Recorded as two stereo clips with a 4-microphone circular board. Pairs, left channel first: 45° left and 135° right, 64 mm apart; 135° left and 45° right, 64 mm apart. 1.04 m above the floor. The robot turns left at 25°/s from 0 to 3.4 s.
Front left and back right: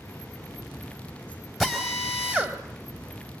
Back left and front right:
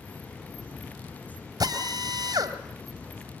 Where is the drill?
50° right, 2.5 m; by 2.6 s 75° right, 2.5 m.